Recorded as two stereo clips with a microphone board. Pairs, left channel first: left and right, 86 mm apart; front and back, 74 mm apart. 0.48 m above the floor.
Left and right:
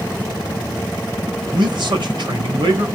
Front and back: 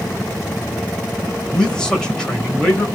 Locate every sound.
1.5 s a man speaking: 80° right, 2 m